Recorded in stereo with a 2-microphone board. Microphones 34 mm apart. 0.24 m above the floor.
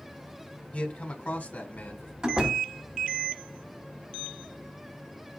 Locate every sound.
0.7 s a man speaking: 40° left (ahead or behind), 1.4 m; by 2.1 s 65° left (ahead or behind), 2 m
2.2 s a door slam: 25° right (ahead or behind), 1.1 m